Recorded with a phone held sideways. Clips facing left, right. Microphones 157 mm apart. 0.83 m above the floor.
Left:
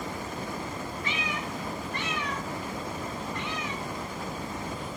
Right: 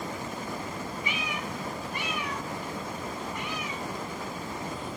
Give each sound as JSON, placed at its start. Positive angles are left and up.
{"t": 1.0, "sound": "a cat meowing", "side_deg": -10, "distance_m": 1.6}